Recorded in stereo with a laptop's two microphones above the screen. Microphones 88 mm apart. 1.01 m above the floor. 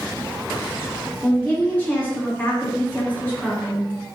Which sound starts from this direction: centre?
A woman speaking, at 1.2 s.